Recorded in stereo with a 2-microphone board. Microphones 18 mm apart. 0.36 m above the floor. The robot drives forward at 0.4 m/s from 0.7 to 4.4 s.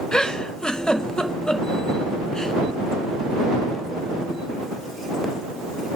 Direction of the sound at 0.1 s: 55° left (ahead or behind).